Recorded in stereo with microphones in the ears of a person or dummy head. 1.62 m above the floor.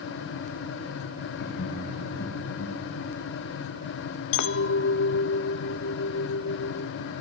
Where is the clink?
65° left (ahead or behind), 1.4 m.